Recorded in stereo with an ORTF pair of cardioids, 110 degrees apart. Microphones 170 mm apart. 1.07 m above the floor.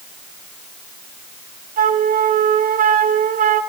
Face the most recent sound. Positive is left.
turn(degrees=-55)